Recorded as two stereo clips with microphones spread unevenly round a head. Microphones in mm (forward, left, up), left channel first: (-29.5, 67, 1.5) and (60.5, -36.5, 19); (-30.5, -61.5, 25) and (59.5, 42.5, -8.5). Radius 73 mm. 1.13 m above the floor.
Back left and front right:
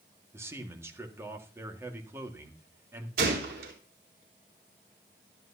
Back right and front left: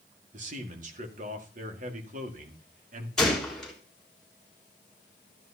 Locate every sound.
0.3 s a man speaking: 20° left, 1.9 m
3.2 s a gunshot: 40° right, 3.5 m